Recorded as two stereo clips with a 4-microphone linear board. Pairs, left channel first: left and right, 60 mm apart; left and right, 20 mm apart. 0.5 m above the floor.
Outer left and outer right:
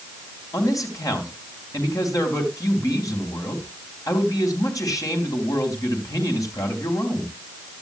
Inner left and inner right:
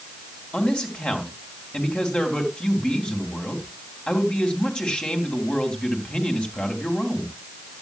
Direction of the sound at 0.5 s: 70° left (ahead or behind).